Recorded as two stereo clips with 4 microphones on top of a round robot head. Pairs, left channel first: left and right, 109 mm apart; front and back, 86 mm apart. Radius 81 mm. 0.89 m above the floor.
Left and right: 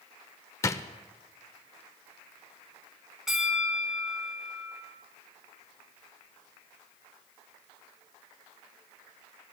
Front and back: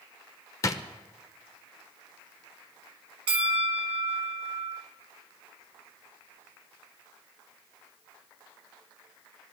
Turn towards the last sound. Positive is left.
turn(degrees=-175)